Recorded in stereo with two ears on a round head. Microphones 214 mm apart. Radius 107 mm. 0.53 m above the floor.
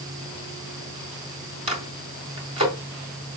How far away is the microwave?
About 3 m.